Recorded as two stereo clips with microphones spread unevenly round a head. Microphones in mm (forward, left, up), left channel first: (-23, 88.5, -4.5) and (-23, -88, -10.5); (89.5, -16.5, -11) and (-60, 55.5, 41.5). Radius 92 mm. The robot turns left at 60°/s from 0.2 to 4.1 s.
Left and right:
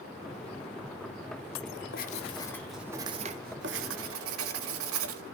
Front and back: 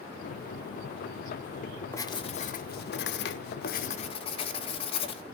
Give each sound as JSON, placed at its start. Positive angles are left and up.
{"t": 1.9, "sound": "writing", "azimuth_deg": 45, "distance_m": 3.0}